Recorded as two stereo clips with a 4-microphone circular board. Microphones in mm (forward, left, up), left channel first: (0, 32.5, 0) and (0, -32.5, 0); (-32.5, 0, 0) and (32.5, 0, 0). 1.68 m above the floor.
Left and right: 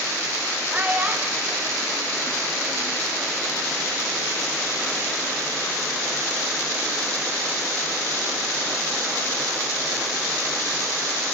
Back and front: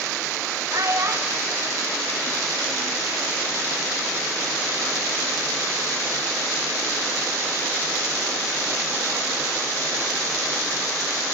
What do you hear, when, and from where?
0.7 s a child speaking: 25° right, 1.7 m; by 3.0 s 105° right, 1.2 m